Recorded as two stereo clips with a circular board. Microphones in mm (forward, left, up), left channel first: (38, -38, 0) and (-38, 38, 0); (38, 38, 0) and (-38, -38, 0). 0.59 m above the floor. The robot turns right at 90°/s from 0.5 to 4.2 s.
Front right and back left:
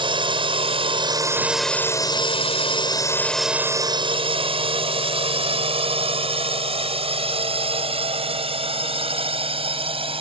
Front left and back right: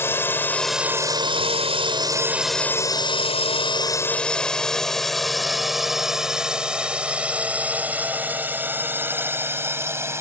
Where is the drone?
110° left; by 10.2 s 160° left.